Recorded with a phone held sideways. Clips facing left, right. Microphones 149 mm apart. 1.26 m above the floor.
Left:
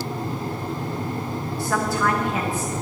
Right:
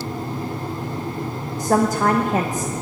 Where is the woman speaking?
40° right (ahead or behind), 0.9 m.